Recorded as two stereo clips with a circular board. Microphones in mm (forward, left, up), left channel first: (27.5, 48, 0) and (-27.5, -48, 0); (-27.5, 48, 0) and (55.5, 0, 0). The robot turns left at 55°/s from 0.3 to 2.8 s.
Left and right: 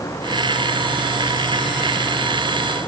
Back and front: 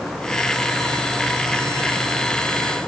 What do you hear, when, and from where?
Only background noise.